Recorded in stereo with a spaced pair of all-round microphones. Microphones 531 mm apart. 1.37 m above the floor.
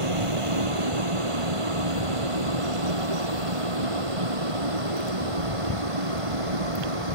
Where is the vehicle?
70° right (ahead or behind); by 7.2 s 75° right (ahead or behind).